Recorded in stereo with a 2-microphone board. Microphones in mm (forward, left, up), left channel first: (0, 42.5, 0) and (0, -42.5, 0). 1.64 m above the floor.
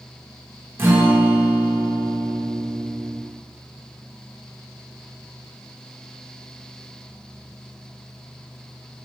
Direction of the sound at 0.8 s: 25° right (ahead or behind).